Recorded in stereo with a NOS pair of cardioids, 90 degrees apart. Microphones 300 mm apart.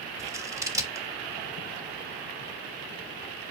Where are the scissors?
10° right, 0.9 m.